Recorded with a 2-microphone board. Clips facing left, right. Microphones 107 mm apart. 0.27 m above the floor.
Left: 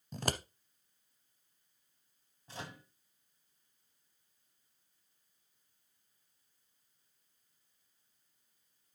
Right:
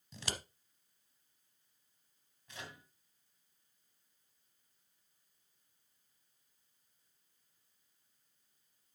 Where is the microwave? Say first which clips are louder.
Left 4 dB; 30° left (ahead or behind), 2.0 m.